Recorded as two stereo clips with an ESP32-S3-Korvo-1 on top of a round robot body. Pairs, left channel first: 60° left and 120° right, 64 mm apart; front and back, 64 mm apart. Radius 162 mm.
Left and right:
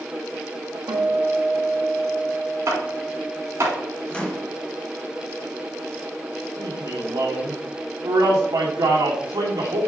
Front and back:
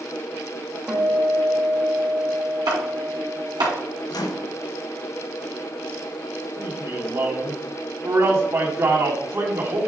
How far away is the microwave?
About 0.9 m.